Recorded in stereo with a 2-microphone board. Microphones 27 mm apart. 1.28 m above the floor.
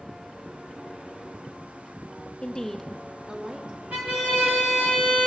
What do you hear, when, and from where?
2.4 s a woman speaking: 30° left (ahead or behind), 0.7 m; by 3.8 s 40° right (ahead or behind), 1.2 m
3.9 s a violin: 70° right (ahead or behind), 2 m